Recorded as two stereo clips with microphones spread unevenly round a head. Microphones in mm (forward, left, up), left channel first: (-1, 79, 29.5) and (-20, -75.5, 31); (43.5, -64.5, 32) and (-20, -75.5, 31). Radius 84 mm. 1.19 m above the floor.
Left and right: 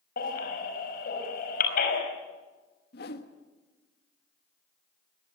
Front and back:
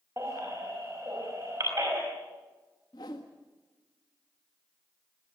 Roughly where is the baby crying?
Behind left.